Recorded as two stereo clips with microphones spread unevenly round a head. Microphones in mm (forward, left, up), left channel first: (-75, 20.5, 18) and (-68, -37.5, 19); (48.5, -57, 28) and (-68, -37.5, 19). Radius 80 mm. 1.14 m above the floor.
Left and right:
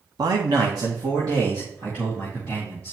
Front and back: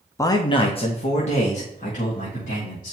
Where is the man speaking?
75° right, 0.9 m; by 2.9 s 20° right, 3 m.